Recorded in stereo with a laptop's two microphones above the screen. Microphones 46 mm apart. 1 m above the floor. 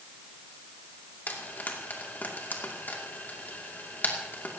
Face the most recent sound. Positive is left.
turn(degrees=40)  # may be behind; listen again after turning